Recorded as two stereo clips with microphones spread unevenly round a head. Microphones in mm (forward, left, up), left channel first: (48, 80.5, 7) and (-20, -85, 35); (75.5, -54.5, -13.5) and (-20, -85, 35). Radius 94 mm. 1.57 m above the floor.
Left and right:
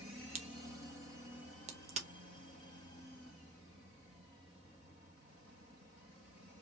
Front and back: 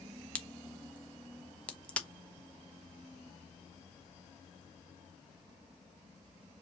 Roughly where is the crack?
Right.